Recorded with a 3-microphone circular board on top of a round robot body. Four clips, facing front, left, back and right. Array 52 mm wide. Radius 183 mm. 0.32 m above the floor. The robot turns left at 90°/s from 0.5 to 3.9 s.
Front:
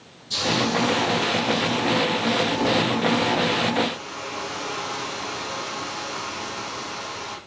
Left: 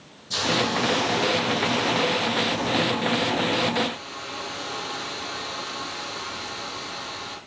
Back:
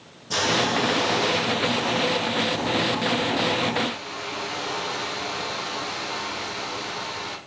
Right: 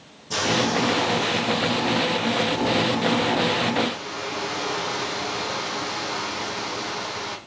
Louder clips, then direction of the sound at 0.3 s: Right 2 dB, back 1 dB; 150° right.